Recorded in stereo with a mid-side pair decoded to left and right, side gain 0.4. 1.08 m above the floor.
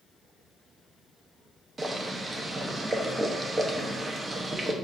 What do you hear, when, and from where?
1.8 s boiling: 35° right, 0.7 m